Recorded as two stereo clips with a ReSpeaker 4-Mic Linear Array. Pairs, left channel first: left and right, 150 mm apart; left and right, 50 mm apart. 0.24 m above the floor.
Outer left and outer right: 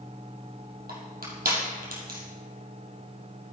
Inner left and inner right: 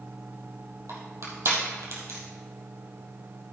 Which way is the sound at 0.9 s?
85° right.